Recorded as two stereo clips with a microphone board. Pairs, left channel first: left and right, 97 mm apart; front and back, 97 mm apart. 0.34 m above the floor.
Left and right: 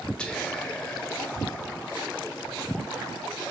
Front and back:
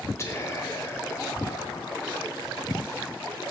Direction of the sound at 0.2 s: 15° left.